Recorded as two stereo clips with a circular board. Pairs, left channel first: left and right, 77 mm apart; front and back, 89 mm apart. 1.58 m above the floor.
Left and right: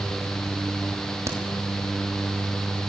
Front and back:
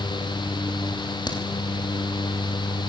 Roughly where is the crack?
Ahead right.